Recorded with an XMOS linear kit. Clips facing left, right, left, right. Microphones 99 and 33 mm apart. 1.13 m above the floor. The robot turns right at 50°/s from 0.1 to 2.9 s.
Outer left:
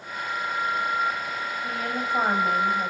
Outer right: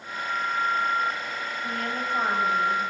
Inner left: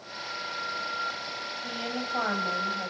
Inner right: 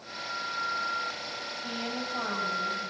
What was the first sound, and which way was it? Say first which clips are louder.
A woman speaking: even, inner left 1 dB; straight ahead.